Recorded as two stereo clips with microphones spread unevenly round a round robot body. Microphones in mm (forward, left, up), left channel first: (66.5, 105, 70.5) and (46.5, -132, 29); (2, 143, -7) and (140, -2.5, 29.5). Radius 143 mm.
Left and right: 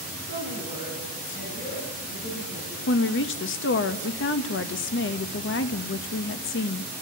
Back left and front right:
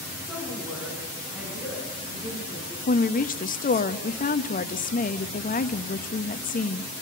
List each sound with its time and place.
0.3 s a woman speaking: 45° left, 8.5 m; by 2.8 s 35° left, 9 m
2.9 s a woman speaking: 120° left, 1.1 m